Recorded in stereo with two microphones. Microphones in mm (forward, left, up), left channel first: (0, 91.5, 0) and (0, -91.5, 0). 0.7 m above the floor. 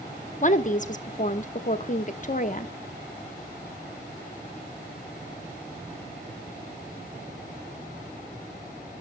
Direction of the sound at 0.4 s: 45° left (ahead or behind).